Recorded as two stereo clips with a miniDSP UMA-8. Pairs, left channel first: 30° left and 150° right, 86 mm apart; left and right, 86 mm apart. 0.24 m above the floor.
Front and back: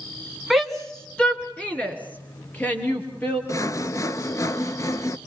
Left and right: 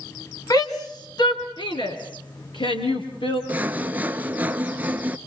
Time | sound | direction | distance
0.5 | a shout | 120° left | 1.6 m
3.5 | sawing | 20° right | 0.5 m